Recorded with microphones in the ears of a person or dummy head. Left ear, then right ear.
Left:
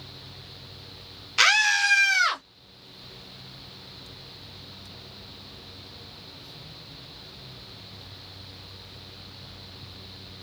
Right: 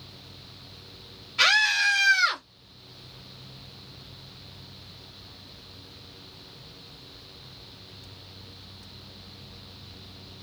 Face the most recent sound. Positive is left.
turn(degrees=45)  # may be behind; listen again after turning